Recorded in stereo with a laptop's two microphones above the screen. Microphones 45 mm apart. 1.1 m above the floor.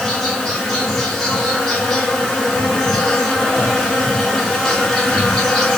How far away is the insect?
About 4 m.